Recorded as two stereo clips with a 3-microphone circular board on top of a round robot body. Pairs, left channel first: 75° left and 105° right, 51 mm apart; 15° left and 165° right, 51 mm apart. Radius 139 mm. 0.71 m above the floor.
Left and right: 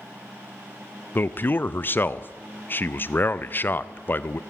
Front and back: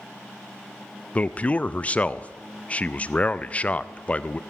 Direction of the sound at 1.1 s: 65° left.